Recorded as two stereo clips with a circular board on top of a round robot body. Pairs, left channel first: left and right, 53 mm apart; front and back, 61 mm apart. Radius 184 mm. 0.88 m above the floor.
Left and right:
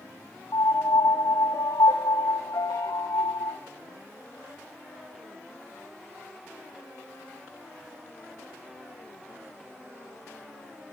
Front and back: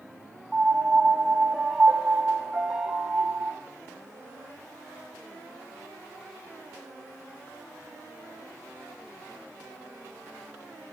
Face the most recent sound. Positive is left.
turn(degrees=100)